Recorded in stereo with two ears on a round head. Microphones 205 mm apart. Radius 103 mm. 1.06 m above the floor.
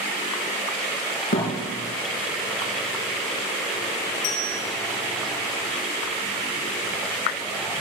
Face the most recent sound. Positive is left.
turn(degrees=80)